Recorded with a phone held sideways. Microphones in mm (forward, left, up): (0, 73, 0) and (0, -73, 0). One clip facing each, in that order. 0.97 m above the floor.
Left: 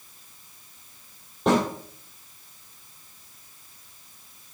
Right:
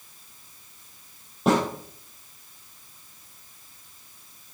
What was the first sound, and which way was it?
A snare drum, 5° right (ahead or behind).